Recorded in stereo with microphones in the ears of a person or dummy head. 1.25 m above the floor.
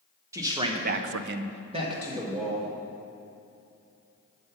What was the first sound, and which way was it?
A man speaking, 20° right (ahead or behind).